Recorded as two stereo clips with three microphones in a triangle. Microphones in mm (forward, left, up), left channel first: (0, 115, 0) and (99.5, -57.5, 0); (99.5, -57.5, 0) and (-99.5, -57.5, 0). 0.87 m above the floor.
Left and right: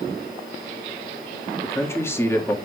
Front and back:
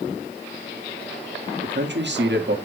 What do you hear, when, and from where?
1.6 s a man speaking: 165° right, 1.7 m